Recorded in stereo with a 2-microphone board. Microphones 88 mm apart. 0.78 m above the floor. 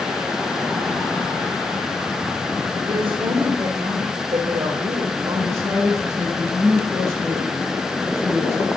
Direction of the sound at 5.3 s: 30° right (ahead or behind).